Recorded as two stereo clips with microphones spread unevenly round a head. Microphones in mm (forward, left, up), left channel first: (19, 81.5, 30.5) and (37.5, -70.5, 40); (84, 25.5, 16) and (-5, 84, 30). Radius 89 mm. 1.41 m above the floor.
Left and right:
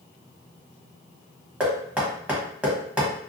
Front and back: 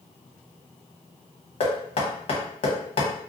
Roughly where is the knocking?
Ahead.